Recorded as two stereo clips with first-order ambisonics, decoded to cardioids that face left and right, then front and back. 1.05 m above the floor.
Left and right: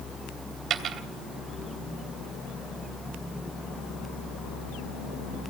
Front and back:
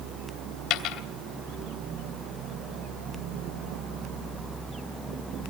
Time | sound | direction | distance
0.7 | a dropped coin | 30° right | 3 m